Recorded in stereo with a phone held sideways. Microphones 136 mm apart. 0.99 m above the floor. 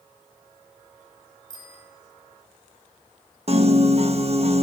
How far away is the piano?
About 1.3 m.